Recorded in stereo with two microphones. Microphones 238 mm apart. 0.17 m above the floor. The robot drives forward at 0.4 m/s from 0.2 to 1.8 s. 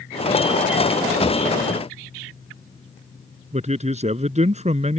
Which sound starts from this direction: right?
A man speaking, at 3.5 s.